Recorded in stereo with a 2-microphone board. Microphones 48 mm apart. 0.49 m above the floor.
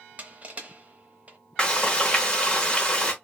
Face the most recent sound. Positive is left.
turn(degrees=20)  # may be behind; listen again after turning